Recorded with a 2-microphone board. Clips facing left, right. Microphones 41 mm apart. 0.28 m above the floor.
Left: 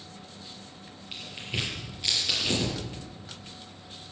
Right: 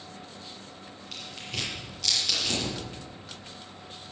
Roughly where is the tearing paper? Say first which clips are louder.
Left 2 dB; left.